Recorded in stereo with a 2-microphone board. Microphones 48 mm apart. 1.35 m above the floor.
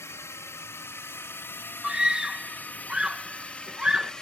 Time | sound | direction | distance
0.0 | a drone | 75° left (ahead or behind) | ?
1.8 | a scream | 15° right (ahead or behind) | ?